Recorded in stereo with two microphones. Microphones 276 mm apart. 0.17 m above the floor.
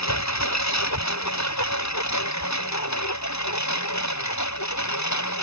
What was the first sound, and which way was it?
A lawn mower, 75° left (ahead or behind).